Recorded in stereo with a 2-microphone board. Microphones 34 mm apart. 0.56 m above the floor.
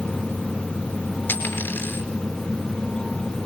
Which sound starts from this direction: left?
A dropped coin, at 1.3 s.